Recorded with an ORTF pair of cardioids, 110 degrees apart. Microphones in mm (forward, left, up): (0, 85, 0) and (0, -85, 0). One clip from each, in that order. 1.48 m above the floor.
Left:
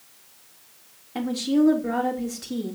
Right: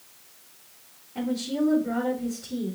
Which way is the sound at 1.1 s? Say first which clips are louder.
Left 5 dB; 65° left.